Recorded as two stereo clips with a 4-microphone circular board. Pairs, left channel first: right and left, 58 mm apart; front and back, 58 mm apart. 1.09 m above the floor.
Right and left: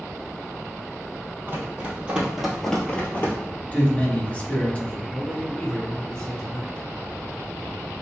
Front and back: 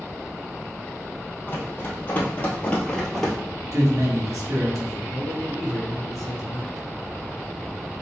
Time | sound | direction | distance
1.5 | running footsteps | 45° left | 1.9 m
3.7 | a man speaking | 155° right | 1.3 m
5.1 | a man speaking | 15° right | 0.6 m